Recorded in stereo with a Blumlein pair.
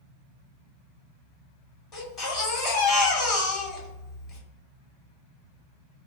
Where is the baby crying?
20° left, 1.8 m.